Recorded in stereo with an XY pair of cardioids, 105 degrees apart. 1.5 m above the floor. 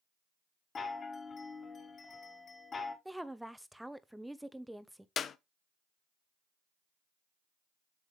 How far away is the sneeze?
No sneeze in this recording.